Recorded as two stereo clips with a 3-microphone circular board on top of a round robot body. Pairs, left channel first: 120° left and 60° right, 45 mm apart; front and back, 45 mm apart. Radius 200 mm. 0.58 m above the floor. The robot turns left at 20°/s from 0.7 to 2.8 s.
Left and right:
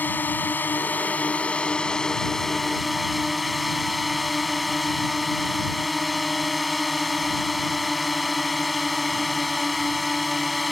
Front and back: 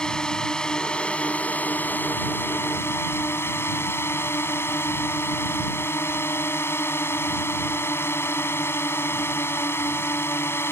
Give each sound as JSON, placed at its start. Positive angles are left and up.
{"t": 0.0, "sound": "a drone", "azimuth_deg": 70}